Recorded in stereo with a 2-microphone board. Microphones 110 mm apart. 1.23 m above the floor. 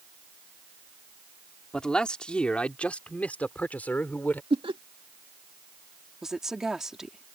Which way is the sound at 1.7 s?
5° left (ahead or behind).